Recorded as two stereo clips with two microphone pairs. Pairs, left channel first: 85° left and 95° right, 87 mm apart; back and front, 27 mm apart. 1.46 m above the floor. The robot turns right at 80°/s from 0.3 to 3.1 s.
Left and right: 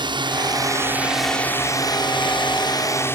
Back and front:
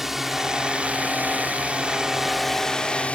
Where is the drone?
80° right; by 3.2 s 145° left.